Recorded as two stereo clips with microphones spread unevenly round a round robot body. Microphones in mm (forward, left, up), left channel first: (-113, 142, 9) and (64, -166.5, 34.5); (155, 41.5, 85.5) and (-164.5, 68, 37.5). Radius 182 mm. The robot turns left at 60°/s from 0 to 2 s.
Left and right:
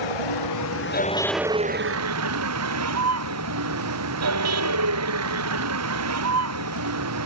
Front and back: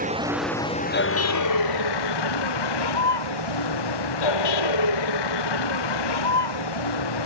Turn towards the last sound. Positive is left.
turn(degrees=-10)